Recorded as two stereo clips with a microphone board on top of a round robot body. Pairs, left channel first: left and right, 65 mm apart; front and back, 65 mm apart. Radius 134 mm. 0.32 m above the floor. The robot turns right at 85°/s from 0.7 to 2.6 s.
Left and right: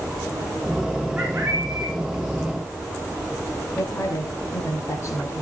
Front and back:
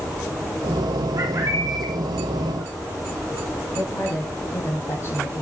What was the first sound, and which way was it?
A bird, 165° right.